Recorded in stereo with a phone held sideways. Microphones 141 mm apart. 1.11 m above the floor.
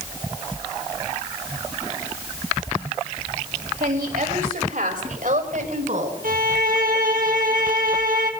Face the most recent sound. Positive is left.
turn(degrees=-80)